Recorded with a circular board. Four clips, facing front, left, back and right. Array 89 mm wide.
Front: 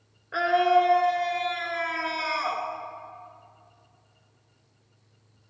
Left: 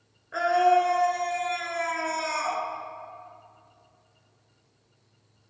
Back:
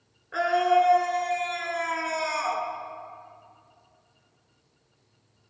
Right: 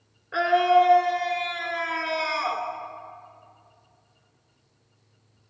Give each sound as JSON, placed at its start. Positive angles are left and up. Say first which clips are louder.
{"t": 0.3, "sound": "a scream", "louder": "right 2 dB, front 1 dB", "azimuth_deg": -55, "distance_m": 1.1}